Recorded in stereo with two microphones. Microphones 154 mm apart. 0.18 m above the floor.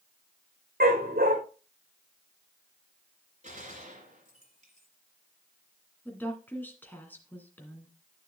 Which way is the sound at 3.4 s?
50° right (ahead or behind).